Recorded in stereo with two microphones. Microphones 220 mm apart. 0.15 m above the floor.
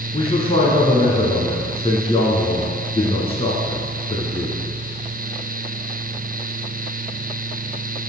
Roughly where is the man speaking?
Left.